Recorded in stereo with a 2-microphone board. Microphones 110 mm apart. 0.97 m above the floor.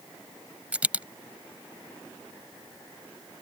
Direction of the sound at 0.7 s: 15° right (ahead or behind).